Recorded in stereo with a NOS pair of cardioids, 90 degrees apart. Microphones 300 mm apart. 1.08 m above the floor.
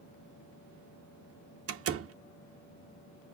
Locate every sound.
1.7 s a door slam: 50° right, 1.1 m